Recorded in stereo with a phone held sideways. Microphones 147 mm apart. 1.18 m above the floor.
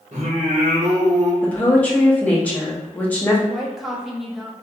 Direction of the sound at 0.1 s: 55° right (ahead or behind).